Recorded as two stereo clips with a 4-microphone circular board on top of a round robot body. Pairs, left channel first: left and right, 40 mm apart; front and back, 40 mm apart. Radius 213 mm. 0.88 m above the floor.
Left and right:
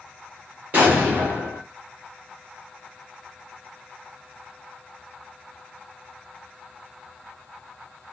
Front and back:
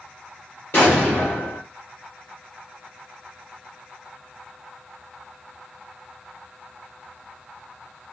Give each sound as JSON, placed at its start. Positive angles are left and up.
{"t": 0.7, "sound": "an explosion", "azimuth_deg": -40, "distance_m": 0.9}